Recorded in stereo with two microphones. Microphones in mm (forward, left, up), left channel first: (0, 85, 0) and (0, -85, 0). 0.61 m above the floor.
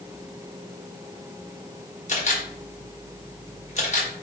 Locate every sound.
2.1 s a camera shutter: 45° left (ahead or behind), 1.3 m